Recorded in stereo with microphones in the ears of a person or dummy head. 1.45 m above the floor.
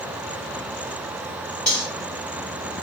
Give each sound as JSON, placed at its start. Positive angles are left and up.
{"t": 1.7, "sound": "cutlery clinking", "side_deg": 0, "distance_m": 1.9}